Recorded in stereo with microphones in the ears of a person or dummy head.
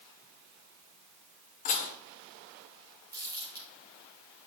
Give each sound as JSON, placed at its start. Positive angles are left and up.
{"t": 1.6, "sound": "dishes clattering", "side_deg": 40, "distance_m": 1.2}
{"t": 3.1, "sound": "crumpling", "side_deg": -15, "distance_m": 3.0}